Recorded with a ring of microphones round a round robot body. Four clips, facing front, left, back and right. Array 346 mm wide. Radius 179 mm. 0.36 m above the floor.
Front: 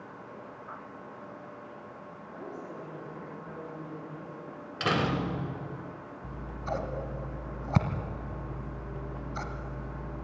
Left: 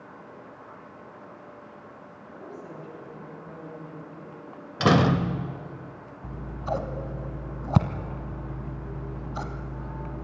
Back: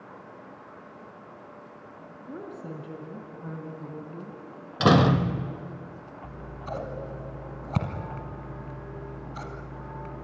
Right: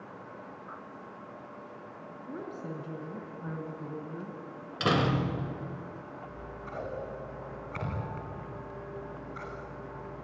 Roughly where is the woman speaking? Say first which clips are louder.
Right 2 dB, back 4 dB; behind right.